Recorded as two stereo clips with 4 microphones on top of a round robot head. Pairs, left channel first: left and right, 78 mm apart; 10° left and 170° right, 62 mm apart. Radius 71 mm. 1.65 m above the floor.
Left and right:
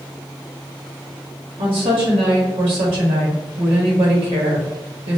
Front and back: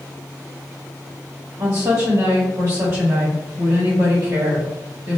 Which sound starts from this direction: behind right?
A woman speaking, at 1.6 s.